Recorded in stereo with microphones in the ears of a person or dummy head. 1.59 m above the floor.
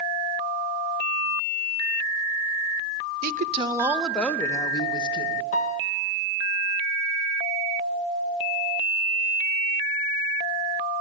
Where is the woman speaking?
55° right (ahead or behind), 0.8 m; by 5.4 s 30° left (ahead or behind), 2 m.